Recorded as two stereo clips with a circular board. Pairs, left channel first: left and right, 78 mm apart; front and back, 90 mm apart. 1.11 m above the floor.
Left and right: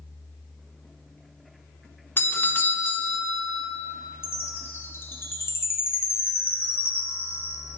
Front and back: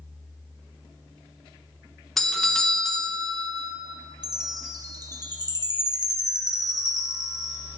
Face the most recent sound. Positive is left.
turn(degrees=145)